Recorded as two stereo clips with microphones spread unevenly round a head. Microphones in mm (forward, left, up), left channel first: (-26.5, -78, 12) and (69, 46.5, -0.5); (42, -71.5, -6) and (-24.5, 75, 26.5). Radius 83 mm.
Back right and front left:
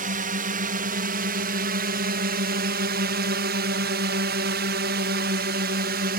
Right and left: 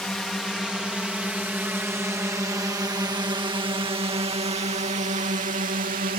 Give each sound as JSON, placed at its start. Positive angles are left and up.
{"t": 0.0, "sound": "a drone", "azimuth_deg": 20}